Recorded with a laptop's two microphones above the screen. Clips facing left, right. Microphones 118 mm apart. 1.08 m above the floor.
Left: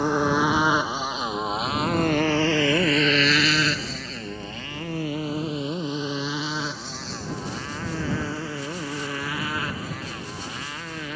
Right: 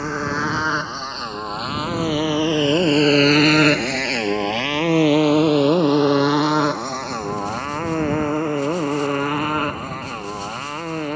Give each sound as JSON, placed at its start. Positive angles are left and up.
{"t": 0.0, "sound": "a motorcycle", "side_deg": 15}